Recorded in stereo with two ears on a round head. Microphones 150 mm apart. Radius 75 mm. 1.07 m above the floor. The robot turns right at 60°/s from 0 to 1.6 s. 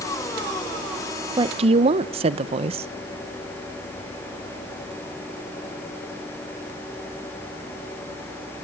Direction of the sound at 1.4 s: 25° right (ahead or behind).